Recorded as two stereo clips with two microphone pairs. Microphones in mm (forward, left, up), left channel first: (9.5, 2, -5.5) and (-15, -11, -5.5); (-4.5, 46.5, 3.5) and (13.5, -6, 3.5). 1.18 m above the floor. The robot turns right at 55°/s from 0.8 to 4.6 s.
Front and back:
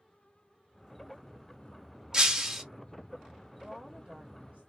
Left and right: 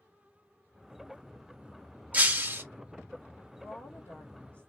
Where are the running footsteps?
No running footsteps in this recording.